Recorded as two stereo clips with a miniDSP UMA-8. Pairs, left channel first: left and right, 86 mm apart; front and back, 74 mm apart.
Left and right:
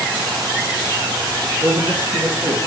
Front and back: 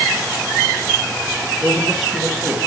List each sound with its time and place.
1.6 s a man speaking: 90° right, 1.5 m